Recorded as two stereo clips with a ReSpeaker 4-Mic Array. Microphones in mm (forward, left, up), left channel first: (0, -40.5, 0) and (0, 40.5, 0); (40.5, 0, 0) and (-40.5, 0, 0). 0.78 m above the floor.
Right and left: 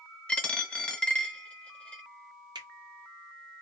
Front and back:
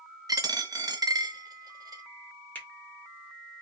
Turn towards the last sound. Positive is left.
turn(degrees=70)